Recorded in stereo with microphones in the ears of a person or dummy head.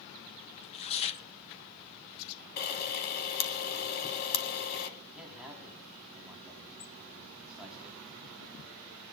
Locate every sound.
0.6 s tearing paper: 35° left (ahead or behind), 1.2 m
2.6 s a camera shutter: 50° left (ahead or behind), 1.8 m
5.1 s a man speaking: 10° right (ahead or behind), 4 m